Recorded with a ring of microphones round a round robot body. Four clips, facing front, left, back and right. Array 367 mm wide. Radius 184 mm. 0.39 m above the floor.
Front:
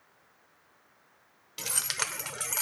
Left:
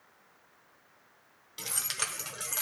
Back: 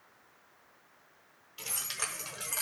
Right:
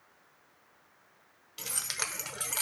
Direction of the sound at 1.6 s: 5° left.